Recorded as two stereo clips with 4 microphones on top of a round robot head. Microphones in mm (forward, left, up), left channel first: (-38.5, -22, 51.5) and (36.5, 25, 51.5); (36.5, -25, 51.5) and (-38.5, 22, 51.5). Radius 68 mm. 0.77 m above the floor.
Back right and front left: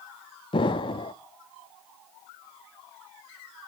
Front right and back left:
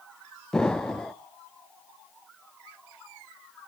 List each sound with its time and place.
0.5 s an explosion: 115° right, 0.5 m